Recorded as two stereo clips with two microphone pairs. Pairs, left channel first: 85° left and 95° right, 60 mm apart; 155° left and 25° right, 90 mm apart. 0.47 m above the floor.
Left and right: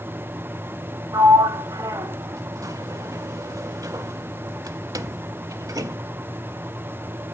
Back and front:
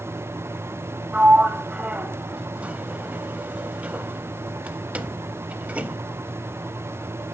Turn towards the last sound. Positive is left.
turn(degrees=-95)